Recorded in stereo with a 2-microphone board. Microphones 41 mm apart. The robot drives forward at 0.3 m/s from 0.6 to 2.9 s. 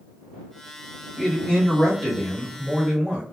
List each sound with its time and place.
1.2 s a man speaking: 25° left (ahead or behind), 1.2 m; by 3.2 s 20° left (ahead or behind), 1.5 m